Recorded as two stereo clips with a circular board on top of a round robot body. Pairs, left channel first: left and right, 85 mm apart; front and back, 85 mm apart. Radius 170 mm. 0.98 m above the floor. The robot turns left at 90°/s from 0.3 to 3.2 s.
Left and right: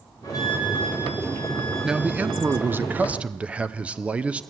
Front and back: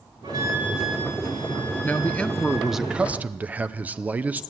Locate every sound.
0.2 s a flute: 140° left, 4 m; by 2.7 s 75° right, 4 m
1.8 s a man speaking: 20° right, 0.8 m; by 4.4 s 145° right, 0.8 m